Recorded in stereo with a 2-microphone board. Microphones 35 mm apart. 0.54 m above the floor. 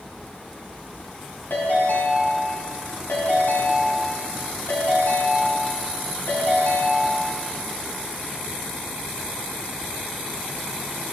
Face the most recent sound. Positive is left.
turn(degrees=70)  # may be behind; listen again after turning